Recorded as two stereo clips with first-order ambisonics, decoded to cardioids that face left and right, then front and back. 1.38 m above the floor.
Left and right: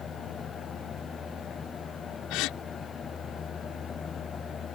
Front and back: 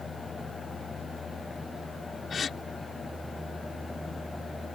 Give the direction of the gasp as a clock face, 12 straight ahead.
10 o'clock.